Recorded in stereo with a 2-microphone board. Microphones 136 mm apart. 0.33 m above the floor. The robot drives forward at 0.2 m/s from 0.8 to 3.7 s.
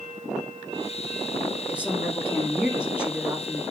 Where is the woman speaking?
10° right (ahead or behind), 3.5 m.